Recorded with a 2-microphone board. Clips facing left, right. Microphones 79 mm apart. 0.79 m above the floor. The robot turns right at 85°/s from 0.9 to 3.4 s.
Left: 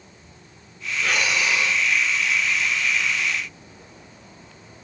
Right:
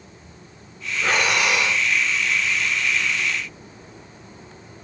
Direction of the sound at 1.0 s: 150° right.